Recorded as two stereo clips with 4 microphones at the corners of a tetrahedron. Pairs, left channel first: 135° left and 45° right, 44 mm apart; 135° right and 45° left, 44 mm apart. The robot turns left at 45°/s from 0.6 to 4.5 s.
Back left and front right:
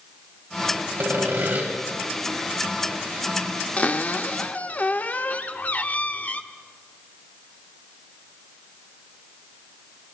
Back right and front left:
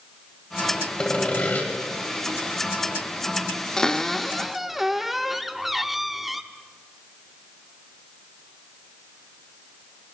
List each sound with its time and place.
1.0 s sawing: 65° right, 2.5 m; by 1.7 s 95° right, 2.5 m
3.8 s a cupboard door: 160° left, 0.6 m; by 6.4 s 130° left, 0.6 m